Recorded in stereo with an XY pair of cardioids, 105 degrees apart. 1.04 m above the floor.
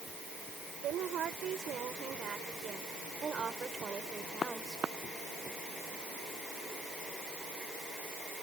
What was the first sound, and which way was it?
A woman speaking, 70° right.